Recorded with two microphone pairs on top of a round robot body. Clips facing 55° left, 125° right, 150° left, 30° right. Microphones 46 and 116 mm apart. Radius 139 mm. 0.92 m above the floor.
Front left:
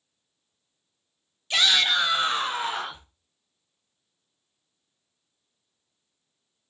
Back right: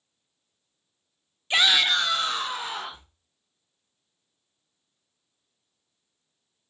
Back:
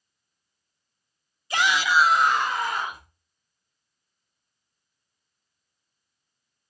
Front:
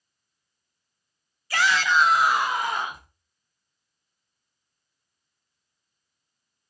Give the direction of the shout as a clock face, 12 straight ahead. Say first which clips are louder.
Back right 1 dB, even; 5 o'clock.